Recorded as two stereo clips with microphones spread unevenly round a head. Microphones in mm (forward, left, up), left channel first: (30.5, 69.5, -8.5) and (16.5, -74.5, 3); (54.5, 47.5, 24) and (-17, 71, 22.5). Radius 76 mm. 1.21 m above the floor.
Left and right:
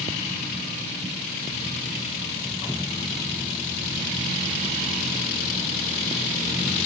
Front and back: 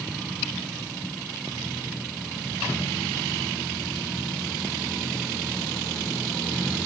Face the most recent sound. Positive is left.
No sound to turn to.